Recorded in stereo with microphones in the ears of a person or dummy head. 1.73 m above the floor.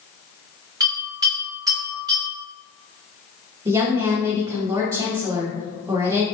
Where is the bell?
20° right (ahead or behind), 1.6 m.